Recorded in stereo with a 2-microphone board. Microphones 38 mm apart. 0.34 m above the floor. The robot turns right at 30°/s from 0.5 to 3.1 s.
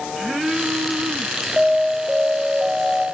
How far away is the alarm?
About 1.6 m.